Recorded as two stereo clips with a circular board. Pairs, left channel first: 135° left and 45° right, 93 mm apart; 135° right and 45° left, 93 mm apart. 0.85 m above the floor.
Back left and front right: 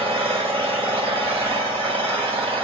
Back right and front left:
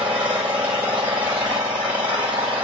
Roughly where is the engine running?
Ahead right.